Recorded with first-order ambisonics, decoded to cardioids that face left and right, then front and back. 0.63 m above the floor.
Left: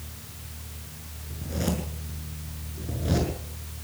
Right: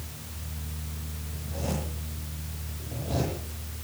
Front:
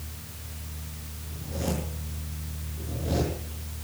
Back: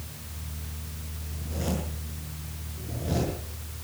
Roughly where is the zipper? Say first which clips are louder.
Left 3 dB, front 1 dB; left.